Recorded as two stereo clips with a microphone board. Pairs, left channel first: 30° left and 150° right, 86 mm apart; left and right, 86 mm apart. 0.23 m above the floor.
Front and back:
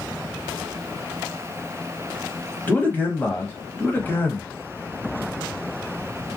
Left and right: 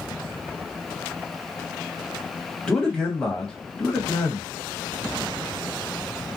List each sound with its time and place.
2.7 s a man speaking: 30° left, 1.0 m